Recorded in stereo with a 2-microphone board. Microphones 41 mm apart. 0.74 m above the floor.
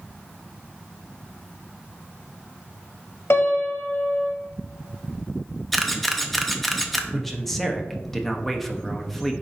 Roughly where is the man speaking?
Centre.